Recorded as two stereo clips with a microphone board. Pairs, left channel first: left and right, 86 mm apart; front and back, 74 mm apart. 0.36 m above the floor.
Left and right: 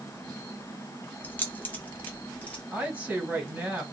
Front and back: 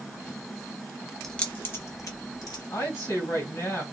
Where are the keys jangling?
80° left, 0.6 m; by 2.6 s 20° left, 1.2 m.